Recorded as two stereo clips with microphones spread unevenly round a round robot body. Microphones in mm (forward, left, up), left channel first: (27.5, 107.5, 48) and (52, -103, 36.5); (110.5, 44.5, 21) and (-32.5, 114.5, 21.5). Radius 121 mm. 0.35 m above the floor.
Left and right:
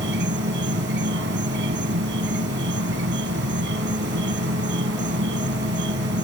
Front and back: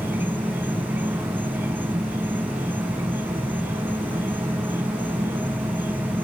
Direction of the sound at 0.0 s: 125° right.